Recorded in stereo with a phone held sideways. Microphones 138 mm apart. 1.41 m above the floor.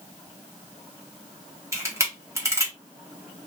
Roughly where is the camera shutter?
Right.